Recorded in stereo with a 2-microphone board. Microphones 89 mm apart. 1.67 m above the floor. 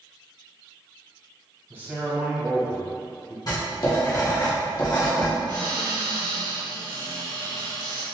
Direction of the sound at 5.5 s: 55° right (ahead or behind).